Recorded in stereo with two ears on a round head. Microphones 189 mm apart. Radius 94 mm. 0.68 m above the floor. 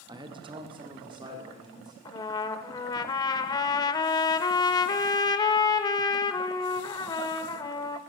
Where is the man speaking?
20° right (ahead or behind), 0.7 m.